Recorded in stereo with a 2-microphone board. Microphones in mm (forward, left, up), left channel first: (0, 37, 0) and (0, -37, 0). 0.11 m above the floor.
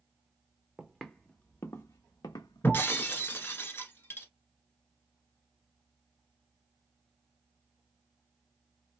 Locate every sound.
0.8 s footsteps: 5° right (ahead or behind), 0.8 m; by 3.1 s 80° left, 1.2 m
2.6 s breaking glass: 30° left (ahead or behind), 0.8 m